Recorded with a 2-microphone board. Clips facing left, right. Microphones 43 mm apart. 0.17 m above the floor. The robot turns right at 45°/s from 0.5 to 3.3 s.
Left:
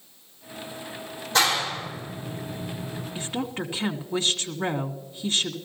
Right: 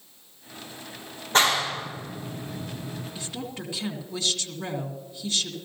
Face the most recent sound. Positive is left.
turn(degrees=35)  # may be behind; listen again after turning